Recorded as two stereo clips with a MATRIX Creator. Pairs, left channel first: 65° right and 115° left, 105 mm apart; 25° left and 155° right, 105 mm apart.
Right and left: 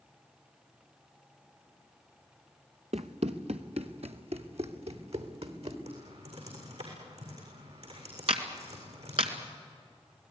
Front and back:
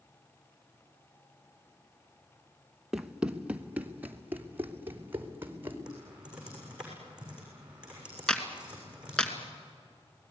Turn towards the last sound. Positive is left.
turn(degrees=105)